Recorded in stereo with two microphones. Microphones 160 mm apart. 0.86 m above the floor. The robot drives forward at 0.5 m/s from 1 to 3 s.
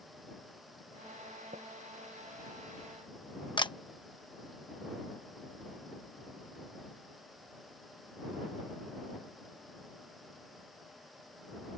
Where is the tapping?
60° right (ahead or behind).